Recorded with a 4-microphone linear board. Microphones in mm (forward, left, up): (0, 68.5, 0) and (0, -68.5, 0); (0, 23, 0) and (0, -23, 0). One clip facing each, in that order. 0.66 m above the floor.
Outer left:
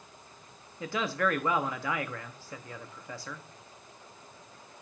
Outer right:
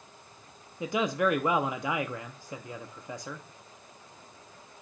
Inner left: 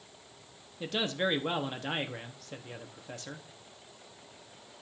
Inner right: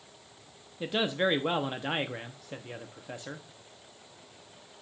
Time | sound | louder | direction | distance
0.8 | a man speaking | outer right 3 dB, inner right 3 dB | 15° right (ahead or behind) | 0.7 m